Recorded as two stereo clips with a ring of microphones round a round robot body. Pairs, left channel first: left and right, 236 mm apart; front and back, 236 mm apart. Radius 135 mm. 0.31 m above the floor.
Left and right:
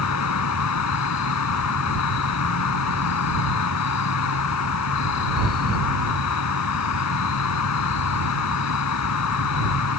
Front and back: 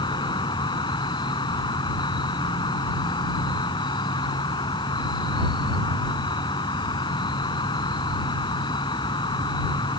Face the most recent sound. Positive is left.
turn(degrees=75)